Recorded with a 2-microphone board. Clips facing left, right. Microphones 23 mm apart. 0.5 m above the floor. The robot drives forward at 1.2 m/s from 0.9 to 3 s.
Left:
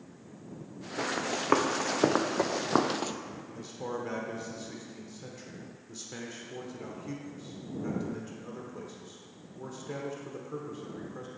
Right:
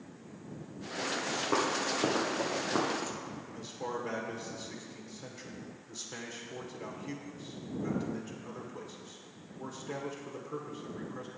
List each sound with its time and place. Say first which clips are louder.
1.0 s running footsteps: left 2 dB; 65° left (ahead or behind), 1.7 m; by 3.1 s 35° left (ahead or behind), 0.5 m
3.5 s a man speaking: left 1 dB; centre (ahead or behind), 1.0 m